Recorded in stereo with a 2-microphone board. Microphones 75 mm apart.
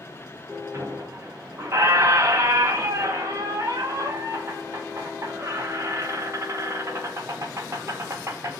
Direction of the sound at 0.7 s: 40° right (ahead or behind).